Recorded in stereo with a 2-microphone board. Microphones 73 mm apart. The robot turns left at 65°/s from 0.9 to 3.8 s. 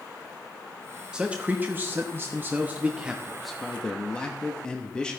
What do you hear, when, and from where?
1.1 s a man speaking: 25° right, 0.9 m; by 5.2 s 160° left, 0.9 m